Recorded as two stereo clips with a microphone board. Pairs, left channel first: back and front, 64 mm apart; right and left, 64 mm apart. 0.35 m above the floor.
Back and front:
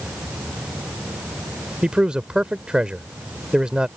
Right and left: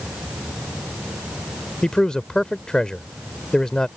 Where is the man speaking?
40° right.